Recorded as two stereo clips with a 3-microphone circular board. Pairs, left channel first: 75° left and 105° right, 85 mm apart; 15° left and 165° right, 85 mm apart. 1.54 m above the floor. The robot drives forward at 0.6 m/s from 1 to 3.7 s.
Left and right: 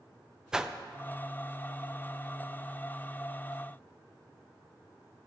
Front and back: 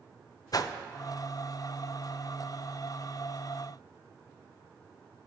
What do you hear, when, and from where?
0.5 s a whoosh: 25° right, 0.6 m